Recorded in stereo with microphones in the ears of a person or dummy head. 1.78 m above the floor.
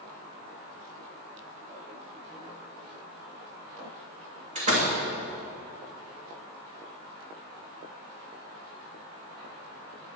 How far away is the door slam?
About 2.5 m.